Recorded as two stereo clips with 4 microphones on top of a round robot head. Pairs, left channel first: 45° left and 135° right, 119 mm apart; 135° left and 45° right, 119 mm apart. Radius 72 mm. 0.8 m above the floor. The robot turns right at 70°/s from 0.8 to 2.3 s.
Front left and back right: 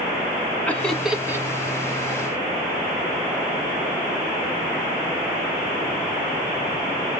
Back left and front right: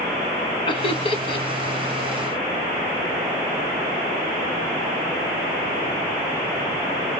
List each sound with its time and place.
0.7 s laughter: 120° left, 0.6 m; by 1.5 s 165° left, 0.6 m